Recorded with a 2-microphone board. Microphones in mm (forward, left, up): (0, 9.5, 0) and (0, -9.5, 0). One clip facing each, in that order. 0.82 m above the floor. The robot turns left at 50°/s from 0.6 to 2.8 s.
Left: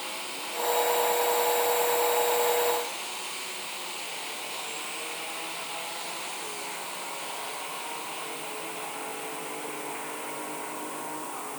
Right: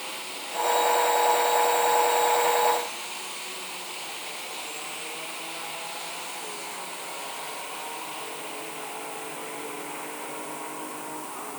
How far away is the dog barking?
No dog barking in this recording.